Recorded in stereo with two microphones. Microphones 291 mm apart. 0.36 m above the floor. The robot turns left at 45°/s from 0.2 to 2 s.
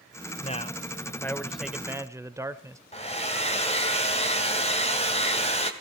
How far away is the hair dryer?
About 2 m.